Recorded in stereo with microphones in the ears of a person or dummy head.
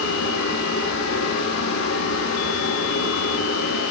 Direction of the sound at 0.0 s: 70° left (ahead or behind).